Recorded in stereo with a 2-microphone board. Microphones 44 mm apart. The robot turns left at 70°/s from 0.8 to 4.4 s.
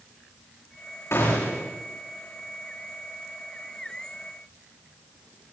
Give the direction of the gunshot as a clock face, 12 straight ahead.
9 o'clock.